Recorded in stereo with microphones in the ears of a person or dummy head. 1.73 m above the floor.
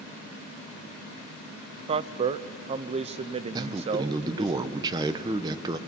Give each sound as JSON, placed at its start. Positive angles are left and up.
{"t": 1.9, "sound": "a man speaking", "side_deg": -30, "distance_m": 0.6}
{"t": 3.5, "sound": "a man speaking", "side_deg": -30, "distance_m": 1.0}